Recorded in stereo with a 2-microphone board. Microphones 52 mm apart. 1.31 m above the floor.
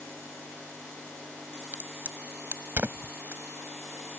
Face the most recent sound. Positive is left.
turn(degrees=-40)  # may be behind; listen again after turning